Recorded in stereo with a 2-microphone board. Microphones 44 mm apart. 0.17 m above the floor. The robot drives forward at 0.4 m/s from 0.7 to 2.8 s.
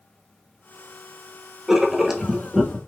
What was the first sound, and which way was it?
Writing, 10° right (ahead or behind).